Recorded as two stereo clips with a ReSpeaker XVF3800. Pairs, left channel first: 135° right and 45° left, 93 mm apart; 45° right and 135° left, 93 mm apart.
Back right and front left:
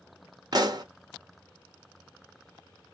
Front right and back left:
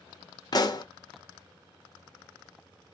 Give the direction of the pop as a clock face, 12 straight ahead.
12 o'clock.